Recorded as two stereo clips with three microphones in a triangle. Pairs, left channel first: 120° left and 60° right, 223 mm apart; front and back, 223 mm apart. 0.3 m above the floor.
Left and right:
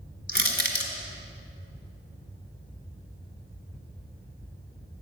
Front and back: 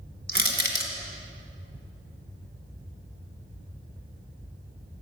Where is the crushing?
150° left, 1.7 m.